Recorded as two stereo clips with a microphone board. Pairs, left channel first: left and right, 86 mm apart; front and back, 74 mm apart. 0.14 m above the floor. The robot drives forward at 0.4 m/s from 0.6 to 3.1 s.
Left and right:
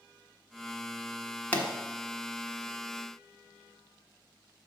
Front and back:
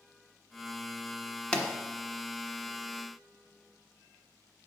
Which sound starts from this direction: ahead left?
A pop, at 1.5 s.